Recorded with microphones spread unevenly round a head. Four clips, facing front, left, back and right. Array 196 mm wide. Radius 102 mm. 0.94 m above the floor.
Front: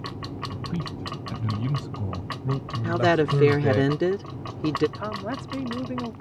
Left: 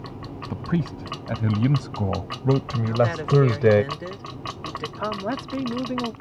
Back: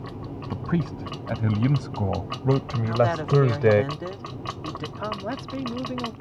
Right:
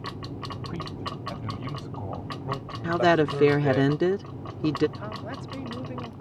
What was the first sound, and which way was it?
A man speaking, 115° left.